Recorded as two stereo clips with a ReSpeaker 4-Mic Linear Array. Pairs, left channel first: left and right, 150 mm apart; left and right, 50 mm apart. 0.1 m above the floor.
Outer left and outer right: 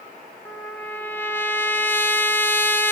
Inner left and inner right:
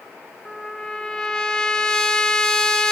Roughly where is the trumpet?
Centre.